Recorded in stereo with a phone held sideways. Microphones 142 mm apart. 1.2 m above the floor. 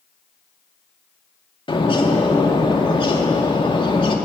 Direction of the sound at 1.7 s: 35° left (ahead or behind).